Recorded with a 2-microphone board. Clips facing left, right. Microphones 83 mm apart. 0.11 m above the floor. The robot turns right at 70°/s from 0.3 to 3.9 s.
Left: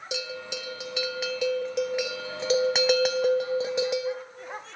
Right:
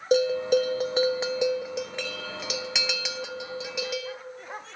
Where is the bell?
110° right, 0.6 m; by 4.2 s 145° left, 0.6 m.